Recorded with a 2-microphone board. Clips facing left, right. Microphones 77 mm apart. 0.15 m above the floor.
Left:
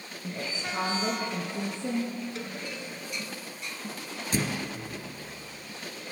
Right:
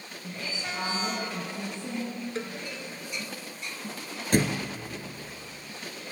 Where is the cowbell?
35° right (ahead or behind), 1.5 m.